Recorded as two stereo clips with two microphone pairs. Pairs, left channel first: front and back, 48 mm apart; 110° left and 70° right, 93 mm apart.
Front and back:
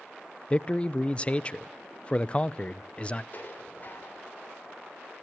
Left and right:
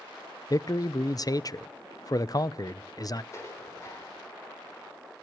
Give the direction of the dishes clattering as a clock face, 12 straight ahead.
10 o'clock.